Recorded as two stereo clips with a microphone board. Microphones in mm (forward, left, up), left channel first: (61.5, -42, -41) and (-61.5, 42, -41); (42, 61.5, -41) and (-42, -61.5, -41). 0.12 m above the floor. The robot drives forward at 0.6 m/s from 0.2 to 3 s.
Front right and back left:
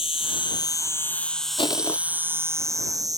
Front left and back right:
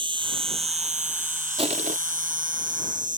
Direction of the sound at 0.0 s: 75° right.